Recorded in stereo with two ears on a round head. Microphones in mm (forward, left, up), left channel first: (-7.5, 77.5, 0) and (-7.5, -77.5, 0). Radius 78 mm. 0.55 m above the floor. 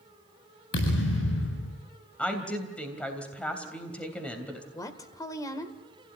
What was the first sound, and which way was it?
A thud, 80° left.